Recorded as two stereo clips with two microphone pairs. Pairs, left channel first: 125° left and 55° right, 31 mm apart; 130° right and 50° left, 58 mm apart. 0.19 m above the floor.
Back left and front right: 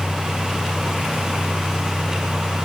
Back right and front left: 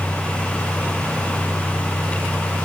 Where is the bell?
No bell in this recording.